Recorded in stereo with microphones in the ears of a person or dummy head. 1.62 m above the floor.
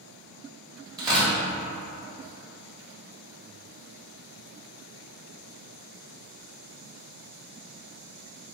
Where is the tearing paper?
20° right (ahead or behind), 1.7 m.